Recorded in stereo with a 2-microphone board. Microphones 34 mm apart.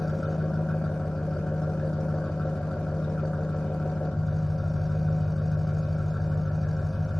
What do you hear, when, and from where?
0.0 s an engine running: 15° left (ahead or behind), 2.5 m